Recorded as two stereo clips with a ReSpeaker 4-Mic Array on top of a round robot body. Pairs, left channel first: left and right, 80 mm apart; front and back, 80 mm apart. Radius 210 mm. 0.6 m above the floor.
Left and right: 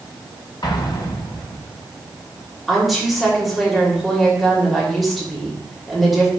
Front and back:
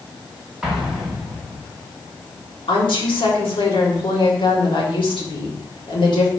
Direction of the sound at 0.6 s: 100° left.